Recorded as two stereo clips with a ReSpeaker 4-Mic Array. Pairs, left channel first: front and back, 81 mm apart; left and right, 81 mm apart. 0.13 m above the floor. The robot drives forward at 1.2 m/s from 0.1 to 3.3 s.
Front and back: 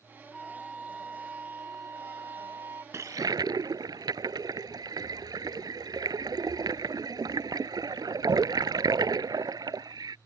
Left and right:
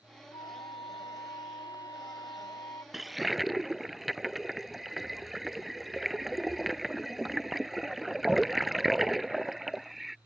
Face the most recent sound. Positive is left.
turn(degrees=180)